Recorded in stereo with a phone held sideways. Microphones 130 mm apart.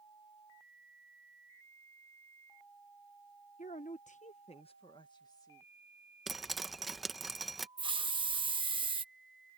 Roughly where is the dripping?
Centre.